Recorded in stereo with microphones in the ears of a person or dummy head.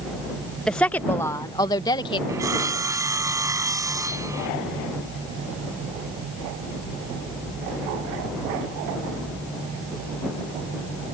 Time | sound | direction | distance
0.7 | a woman speaking | centre (ahead or behind) | ?
2.3 | sawing | 15° right (ahead or behind) | ?